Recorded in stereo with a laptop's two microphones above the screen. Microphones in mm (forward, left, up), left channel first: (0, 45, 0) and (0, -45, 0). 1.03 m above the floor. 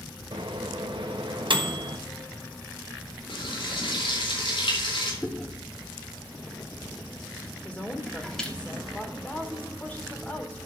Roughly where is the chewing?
Centre.